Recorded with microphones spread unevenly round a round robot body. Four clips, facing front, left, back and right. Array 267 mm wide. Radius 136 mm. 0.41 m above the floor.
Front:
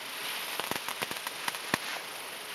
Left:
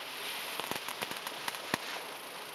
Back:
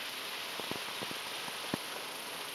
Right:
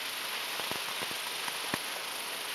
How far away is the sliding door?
No sliding door in this recording.